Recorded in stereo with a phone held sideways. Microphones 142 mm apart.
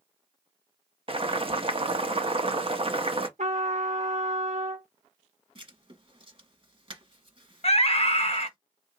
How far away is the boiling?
About 0.8 m.